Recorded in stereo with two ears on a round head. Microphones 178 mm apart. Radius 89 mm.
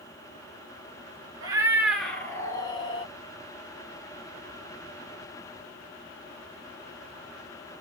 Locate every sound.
1.4 s a cat meowing: 20° right (ahead or behind), 0.9 m; by 3.1 s 30° left (ahead or behind), 1.3 m